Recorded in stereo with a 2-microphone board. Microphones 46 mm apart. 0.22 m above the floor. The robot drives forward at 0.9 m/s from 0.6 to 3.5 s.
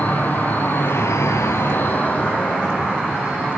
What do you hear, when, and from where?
0.0 s an insect: 40° left (ahead or behind), 0.7 m; by 3.6 s 15° left (ahead or behind), 2 m